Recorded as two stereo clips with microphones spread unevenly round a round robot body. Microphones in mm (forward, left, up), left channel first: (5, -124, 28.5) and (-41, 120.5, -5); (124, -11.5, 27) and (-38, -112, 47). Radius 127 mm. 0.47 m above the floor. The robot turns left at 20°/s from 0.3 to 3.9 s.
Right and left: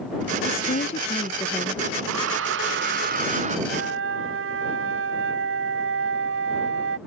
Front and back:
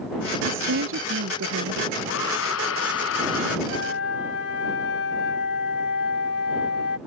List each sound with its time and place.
0.5 s a woman speaking: 135° right; by 2.0 s 165° right
2.1 s a hair dryer: 65° left; by 3.6 s 35° left
3.7 s a flute: 65° left; by 7.0 s 60° left